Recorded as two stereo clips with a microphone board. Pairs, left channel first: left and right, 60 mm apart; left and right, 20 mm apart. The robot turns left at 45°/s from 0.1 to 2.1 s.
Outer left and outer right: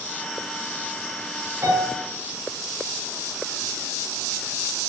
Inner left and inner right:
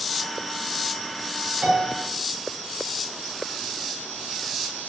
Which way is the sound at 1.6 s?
55° right (ahead or behind).